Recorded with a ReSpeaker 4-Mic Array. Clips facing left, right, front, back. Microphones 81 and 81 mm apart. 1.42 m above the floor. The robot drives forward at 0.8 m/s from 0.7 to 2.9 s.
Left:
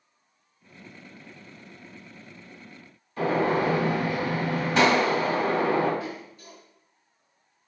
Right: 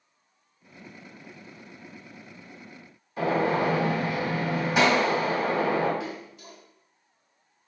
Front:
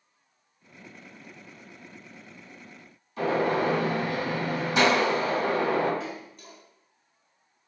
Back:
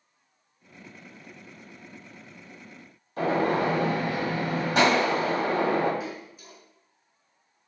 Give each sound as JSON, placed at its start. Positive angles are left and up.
{"t": 3.2, "sound": "a gunshot", "azimuth_deg": -160, "distance_m": 1.7}
{"t": 6.0, "sound": "a splash", "azimuth_deg": -95, "distance_m": 0.9}